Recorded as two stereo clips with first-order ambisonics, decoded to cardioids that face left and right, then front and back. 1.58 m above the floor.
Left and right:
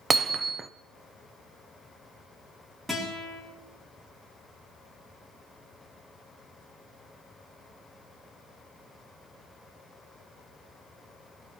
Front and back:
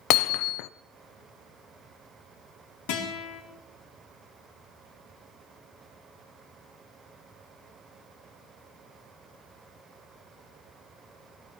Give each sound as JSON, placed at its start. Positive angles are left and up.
{"t": 0.1, "sound": "hammering", "azimuth_deg": -20, "distance_m": 0.6}
{"t": 2.9, "sound": "a guitar", "azimuth_deg": 0, "distance_m": 4.0}